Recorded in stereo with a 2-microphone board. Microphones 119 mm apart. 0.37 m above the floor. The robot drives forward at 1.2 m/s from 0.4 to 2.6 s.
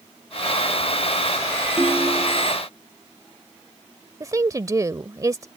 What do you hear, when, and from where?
1.8 s a ringtone: 15° right (ahead or behind)
4.2 s a woman speaking: 30° right (ahead or behind)